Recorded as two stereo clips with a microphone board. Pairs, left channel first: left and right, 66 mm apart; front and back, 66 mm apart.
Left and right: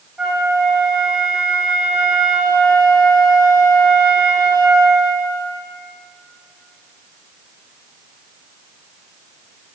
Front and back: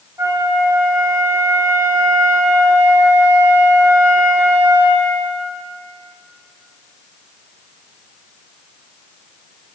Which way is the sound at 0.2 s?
170° right.